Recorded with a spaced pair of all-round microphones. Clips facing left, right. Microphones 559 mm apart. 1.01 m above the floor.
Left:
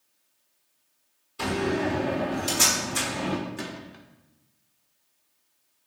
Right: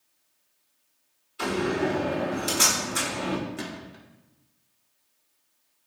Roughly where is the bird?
I don't hear a bird.